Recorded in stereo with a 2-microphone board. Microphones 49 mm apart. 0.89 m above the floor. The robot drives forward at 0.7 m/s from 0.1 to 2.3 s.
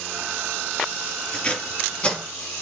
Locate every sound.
1.3 s tape being pulled: 20° left (ahead or behind), 5 m